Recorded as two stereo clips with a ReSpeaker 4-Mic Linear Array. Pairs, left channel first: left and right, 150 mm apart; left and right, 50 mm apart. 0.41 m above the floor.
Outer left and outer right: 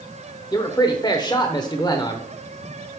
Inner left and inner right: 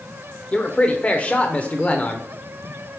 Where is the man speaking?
25° left (ahead or behind), 0.8 m.